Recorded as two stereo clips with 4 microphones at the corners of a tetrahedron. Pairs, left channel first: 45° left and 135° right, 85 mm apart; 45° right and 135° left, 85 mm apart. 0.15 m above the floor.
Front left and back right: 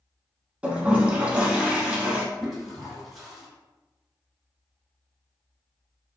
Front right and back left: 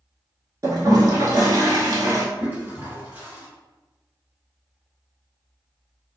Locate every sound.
0.6 s a toilet flushing: 155° left, 0.8 m
2.4 s a toilet flushing: 145° left, 1.7 m